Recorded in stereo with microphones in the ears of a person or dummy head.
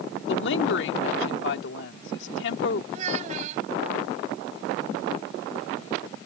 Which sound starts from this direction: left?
A woman speaking, at 0.3 s.